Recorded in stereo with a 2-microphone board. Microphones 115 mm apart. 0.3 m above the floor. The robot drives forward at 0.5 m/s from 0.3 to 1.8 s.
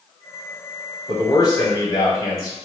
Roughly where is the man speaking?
Left.